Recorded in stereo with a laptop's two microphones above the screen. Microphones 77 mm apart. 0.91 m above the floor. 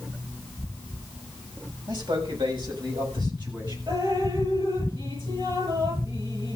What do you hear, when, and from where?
1.9 s a man speaking: 80° right, 6.5 m; by 3.8 s 75° right (ahead or behind), 7.5 m
3.9 s dripping: 80° right, 8.5 m